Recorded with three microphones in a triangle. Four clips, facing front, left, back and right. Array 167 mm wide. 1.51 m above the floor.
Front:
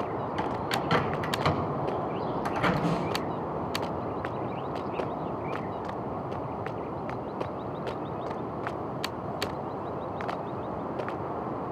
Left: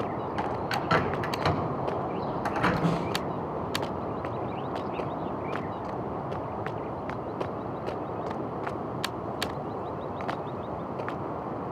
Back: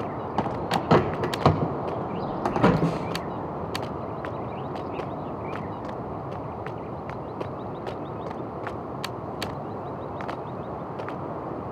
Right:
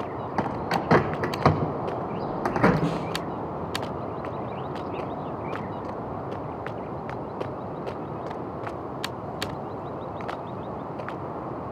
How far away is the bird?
About 0.8 m.